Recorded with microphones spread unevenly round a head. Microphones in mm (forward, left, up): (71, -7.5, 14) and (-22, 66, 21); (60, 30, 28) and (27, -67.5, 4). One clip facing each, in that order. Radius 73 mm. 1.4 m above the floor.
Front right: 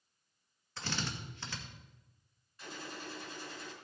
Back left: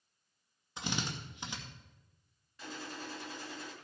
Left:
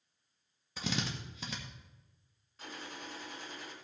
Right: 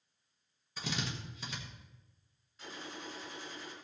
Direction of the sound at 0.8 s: 65° left.